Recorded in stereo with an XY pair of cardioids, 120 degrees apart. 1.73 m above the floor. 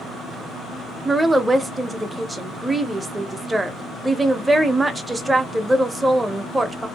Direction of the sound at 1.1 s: 15° right.